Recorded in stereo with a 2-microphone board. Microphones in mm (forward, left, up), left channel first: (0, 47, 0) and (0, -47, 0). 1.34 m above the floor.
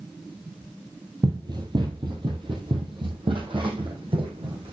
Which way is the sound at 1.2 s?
45° right (ahead or behind).